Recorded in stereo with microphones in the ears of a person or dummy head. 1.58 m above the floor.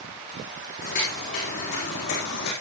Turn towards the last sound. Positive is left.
turn(degrees=45)  # may be behind; listen again after turning